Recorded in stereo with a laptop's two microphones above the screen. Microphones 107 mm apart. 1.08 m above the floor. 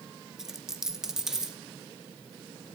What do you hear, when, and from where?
0.4 s a dropped coin: 5° right (ahead or behind), 0.7 m